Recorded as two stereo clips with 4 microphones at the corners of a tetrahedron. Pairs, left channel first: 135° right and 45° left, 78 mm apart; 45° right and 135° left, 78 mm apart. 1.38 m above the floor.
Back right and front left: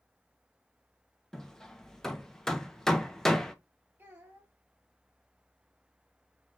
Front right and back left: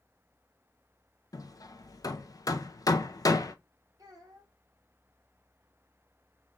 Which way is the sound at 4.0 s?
105° left.